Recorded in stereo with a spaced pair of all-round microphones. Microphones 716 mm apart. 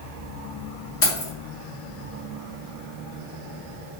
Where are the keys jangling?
50° left (ahead or behind), 1.4 m.